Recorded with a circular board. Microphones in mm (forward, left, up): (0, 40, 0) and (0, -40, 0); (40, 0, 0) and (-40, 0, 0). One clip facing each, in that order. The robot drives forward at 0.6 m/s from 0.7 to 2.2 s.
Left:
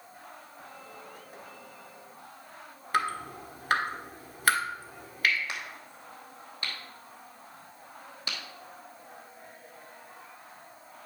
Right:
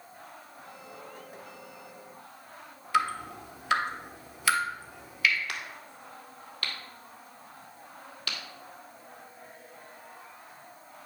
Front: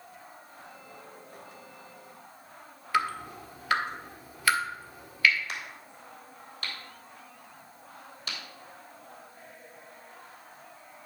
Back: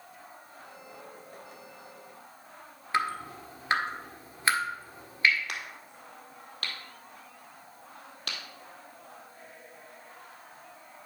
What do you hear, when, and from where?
2.9 s dripping: 125° left, 1.3 m
5.5 s a crack: 160° left, 2.0 m